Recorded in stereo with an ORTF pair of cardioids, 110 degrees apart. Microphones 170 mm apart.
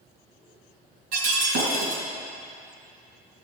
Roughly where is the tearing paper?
I don't hear tearing paper.